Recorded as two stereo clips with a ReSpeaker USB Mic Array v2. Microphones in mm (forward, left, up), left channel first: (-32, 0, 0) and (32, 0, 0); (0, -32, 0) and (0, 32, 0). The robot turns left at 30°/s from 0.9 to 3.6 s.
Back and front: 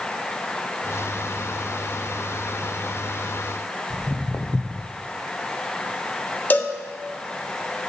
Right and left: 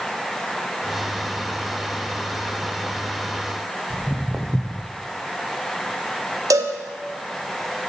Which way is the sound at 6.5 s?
120° left.